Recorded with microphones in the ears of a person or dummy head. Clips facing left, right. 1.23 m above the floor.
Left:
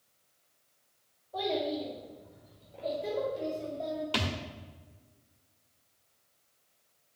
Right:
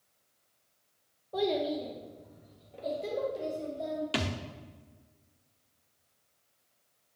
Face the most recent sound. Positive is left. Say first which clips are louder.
# right 1 dB
turn(degrees=-20)  # may be behind; listen again after turning